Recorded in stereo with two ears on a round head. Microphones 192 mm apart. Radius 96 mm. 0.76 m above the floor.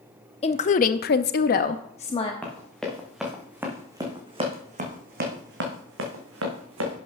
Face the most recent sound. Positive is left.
turn(degrees=-75)  # may be behind; listen again after turning